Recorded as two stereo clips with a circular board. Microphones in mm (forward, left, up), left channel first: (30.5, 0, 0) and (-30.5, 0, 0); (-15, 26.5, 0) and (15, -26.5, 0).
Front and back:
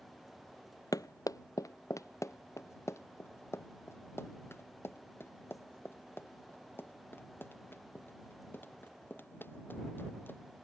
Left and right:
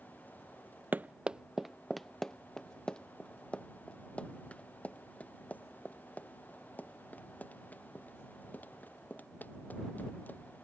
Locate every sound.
0.9 s running footsteps: straight ahead; by 10.4 s 55° left